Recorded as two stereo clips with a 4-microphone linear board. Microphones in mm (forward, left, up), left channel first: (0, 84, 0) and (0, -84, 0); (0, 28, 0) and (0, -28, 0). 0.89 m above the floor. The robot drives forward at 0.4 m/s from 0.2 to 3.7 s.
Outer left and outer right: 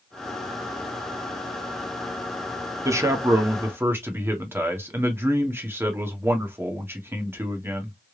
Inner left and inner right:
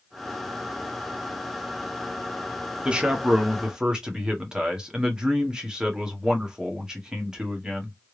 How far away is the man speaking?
About 1.1 m.